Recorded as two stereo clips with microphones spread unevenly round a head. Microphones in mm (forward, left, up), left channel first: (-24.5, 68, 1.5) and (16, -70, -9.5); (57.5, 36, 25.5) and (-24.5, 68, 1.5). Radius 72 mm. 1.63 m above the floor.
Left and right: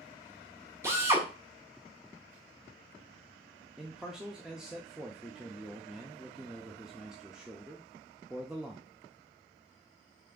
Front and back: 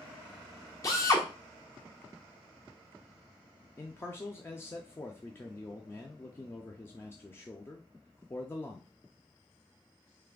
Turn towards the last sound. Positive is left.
turn(degrees=15)